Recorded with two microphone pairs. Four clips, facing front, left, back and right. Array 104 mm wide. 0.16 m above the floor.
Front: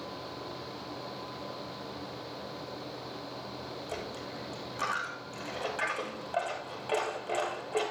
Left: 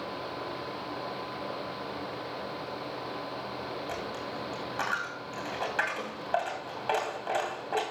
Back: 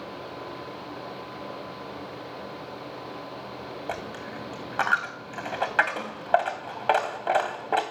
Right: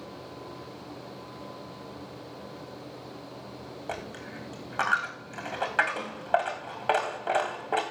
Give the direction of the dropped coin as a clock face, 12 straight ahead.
5 o'clock.